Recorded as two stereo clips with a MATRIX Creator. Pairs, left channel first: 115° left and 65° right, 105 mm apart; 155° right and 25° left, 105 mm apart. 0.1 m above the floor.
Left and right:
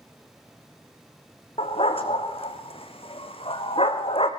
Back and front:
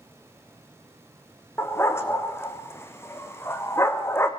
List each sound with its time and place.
1.6 s a dog barking: 135° left, 2 m